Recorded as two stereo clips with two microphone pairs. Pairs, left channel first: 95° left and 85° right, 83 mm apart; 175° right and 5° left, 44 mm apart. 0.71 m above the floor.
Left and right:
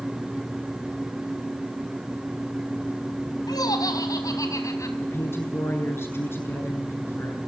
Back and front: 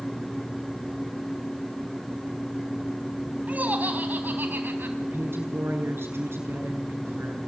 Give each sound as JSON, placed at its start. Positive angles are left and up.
{"t": 3.5, "sound": "laughter", "azimuth_deg": 60, "distance_m": 4.0}
{"t": 5.0, "sound": "a woman speaking", "azimuth_deg": 35, "distance_m": 9.0}